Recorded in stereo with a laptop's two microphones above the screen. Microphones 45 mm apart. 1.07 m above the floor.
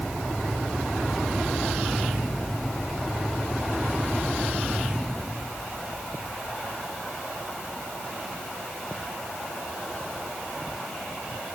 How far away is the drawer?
No drawer in this recording.